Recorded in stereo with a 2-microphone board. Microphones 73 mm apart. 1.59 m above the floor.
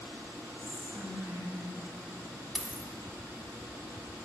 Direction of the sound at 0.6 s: 50° right (ahead or behind).